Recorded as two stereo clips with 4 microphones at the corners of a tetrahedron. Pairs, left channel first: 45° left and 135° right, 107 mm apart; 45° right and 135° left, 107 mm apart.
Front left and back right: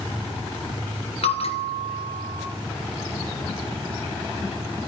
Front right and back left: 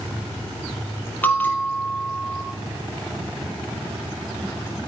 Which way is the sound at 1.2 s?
30° left.